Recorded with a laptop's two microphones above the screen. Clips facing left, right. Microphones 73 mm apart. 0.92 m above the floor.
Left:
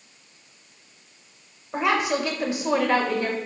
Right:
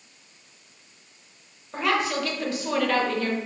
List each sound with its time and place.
1.7 s a woman speaking: 20° left (ahead or behind), 0.8 m